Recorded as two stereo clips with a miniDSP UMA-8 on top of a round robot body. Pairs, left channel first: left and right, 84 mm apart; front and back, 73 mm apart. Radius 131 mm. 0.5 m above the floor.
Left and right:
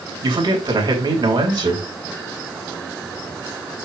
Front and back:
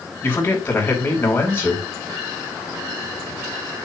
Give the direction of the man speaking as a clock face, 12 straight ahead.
2 o'clock.